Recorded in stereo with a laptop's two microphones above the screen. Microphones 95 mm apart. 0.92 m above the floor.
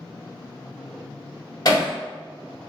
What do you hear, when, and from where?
1.6 s hammering: 40° left (ahead or behind), 1.4 m